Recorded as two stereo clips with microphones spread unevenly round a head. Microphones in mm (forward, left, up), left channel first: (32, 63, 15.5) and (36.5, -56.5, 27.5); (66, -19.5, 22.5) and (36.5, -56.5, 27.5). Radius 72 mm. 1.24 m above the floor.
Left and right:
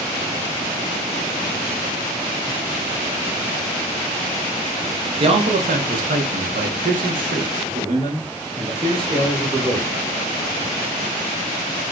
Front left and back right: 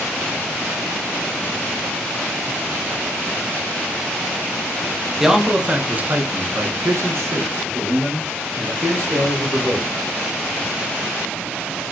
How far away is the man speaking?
About 1.0 m.